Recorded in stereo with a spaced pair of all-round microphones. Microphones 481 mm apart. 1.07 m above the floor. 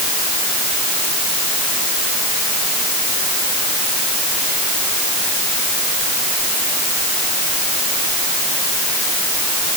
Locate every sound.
Only background noise.